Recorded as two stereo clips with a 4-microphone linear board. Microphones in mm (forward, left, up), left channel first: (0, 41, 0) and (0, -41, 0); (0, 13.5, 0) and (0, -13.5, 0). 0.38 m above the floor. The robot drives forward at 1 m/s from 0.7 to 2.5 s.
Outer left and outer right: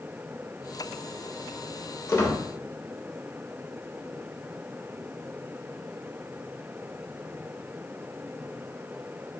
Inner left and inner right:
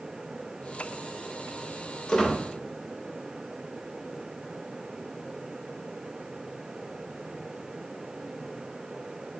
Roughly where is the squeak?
Left.